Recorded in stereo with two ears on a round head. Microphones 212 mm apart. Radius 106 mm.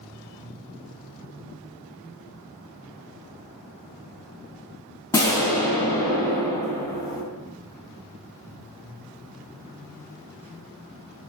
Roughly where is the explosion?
Centre.